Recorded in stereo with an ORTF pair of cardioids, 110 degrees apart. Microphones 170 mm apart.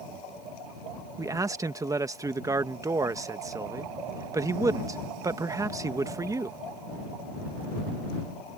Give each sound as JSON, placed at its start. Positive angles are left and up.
{"t": 1.2, "sound": "a man speaking", "azimuth_deg": -20}